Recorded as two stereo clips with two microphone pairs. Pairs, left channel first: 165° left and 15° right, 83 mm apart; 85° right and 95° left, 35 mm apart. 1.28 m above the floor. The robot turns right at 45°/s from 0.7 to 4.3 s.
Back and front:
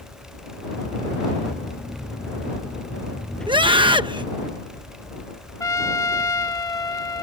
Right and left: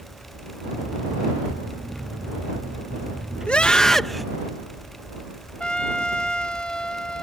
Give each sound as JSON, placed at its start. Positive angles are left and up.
{"t": 3.5, "sound": "a scream", "azimuth_deg": -30}
{"t": 5.6, "sound": "a trumpet", "azimuth_deg": -150}